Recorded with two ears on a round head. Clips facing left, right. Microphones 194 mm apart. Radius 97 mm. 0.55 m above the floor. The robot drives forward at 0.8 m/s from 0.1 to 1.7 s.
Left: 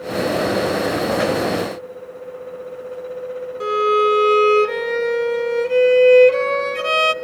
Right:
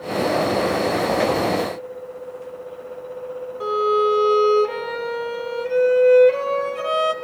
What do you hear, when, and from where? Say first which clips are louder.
3.6 s a violin: left 2 dB; 30° left (ahead or behind), 1.1 m